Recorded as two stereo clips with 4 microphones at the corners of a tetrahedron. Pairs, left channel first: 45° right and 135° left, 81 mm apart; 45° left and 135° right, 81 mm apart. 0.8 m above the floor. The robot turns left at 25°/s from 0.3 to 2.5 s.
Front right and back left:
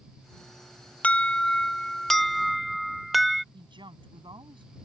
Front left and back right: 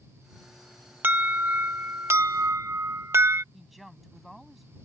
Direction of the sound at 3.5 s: 135° left.